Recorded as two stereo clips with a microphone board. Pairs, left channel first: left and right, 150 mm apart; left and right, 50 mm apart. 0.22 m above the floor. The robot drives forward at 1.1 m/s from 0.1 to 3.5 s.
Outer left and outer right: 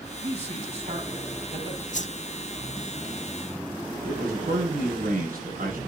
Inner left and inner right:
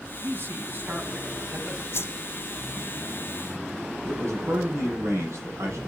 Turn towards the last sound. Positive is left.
turn(degrees=-70)  # may be behind; listen again after turning